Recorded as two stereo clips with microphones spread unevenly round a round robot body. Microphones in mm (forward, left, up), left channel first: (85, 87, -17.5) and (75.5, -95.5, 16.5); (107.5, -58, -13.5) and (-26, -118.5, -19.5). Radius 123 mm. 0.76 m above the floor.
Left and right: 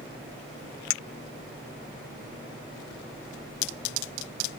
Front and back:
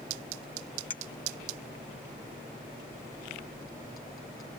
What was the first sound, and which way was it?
A clink, 95° left.